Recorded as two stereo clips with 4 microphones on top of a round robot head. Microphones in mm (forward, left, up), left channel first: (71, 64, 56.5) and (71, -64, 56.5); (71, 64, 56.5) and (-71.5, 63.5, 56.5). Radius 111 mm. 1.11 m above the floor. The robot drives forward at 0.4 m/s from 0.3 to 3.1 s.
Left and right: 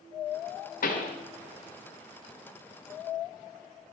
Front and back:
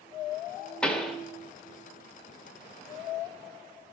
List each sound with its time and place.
0.8 s a pop: 85° left, 1.2 m; by 1.2 s 90° left, 1.2 m